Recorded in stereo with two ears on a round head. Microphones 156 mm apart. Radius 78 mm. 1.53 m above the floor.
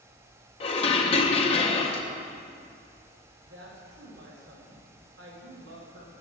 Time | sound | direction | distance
0.6 | dishes clattering | 35° left (ahead or behind) | 0.7 m
3.4 | a woman speaking | 65° right (ahead or behind) | 1.9 m